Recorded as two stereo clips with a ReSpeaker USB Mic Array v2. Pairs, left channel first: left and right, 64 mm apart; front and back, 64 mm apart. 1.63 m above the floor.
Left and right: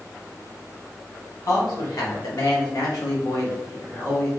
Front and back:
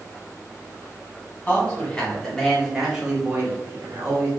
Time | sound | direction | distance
1.5 | a man speaking | 65° left | 1.3 m